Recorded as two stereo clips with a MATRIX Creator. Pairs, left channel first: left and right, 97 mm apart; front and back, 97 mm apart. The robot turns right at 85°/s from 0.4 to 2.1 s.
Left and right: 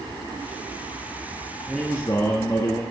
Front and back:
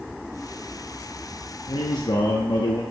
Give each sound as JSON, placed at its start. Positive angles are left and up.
{"t": 1.7, "sound": "a man speaking", "azimuth_deg": -5, "distance_m": 0.8}